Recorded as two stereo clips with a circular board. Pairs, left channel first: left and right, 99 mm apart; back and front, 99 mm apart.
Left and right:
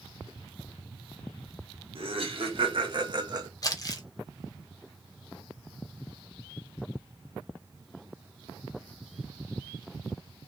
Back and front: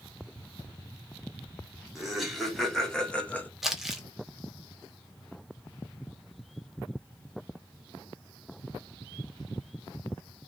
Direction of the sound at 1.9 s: 90° right.